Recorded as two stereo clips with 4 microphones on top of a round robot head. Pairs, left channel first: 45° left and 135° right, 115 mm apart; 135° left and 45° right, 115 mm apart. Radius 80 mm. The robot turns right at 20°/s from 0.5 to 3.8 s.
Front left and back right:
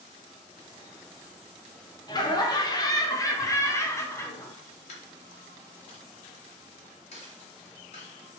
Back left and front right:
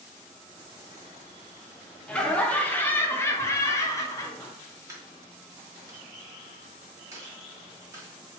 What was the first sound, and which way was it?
Laughter, 60° left.